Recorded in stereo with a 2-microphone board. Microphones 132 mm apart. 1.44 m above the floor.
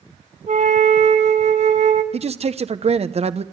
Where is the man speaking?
50° right (ahead or behind), 1.0 m.